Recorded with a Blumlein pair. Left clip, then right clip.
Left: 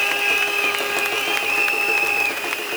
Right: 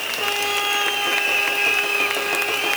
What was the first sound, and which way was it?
Only background noise.